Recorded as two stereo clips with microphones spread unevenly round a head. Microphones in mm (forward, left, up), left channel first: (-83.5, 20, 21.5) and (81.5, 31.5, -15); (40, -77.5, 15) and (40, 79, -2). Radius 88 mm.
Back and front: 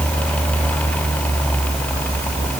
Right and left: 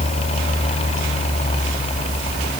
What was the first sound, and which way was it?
Only background noise.